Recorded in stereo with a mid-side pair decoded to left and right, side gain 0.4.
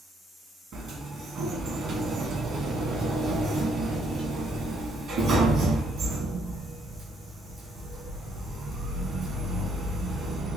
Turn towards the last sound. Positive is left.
turn(degrees=-70)